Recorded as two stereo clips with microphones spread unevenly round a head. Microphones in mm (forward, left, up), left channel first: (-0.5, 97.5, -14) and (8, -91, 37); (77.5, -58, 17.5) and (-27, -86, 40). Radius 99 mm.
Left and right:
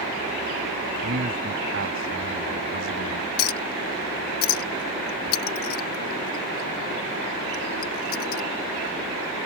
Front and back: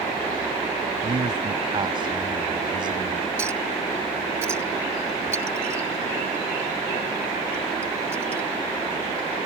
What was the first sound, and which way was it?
A man speaking, 120° right.